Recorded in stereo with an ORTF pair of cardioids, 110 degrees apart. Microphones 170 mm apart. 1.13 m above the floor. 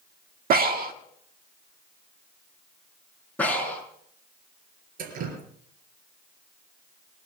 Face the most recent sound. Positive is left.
turn(degrees=-65)